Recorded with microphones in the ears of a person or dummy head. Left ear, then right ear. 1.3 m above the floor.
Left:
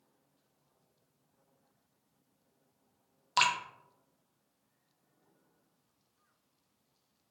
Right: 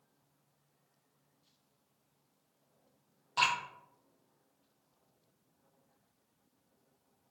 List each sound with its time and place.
3.4 s dripping: 70° left (ahead or behind), 0.6 m